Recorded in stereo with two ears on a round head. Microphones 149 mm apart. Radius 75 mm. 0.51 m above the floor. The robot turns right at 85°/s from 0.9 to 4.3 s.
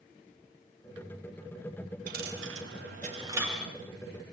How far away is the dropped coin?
About 6 m.